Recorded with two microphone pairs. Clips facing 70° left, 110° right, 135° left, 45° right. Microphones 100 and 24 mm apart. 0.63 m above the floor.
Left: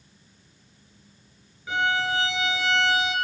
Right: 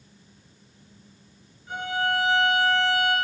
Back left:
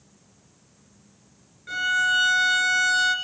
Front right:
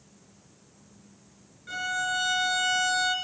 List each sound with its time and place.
1.7 s a violin: 60° left, 1.8 m